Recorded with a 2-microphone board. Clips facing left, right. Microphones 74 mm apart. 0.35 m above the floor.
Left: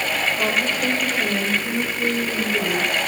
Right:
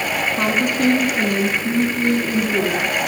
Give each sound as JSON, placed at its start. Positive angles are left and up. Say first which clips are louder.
{"t": 0.4, "sound": "a woman speaking", "louder": "right 4 dB", "side_deg": -75, "distance_m": 4.5}